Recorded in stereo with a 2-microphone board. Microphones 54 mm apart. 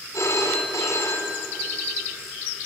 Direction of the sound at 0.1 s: 65° left (ahead or behind).